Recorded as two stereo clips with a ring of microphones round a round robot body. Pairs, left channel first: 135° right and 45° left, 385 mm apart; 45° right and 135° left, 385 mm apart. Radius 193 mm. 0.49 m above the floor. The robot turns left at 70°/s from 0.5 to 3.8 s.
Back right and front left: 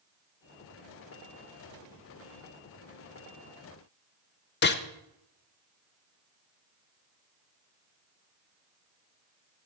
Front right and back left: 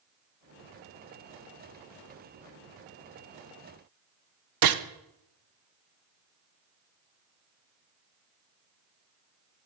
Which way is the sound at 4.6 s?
165° left.